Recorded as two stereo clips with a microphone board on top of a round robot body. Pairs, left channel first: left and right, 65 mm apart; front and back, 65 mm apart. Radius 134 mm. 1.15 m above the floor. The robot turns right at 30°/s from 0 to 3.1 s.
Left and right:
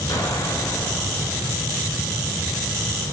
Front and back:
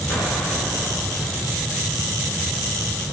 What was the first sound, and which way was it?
An explosion, 60° left.